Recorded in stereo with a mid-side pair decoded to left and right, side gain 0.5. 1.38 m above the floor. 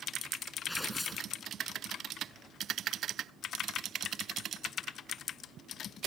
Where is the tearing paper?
10° left.